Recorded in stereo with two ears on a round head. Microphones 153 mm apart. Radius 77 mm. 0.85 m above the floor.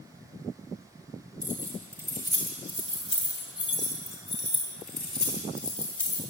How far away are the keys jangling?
About 2.5 m.